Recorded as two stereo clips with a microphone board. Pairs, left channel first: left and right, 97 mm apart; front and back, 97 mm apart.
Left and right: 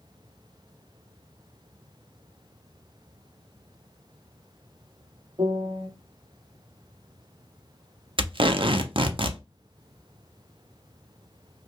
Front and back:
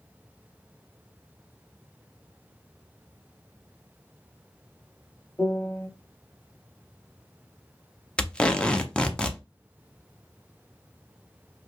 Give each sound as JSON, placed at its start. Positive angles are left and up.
{"t": 5.4, "sound": "a piano", "azimuth_deg": -70, "distance_m": 1.0}
{"t": 8.2, "sound": "tape being pulled", "azimuth_deg": -80, "distance_m": 0.5}